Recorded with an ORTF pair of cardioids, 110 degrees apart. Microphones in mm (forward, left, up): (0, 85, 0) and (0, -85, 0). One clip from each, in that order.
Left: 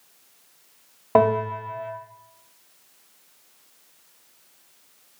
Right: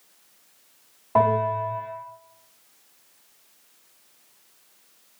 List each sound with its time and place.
1.1 s a bell: 55° left, 1.4 m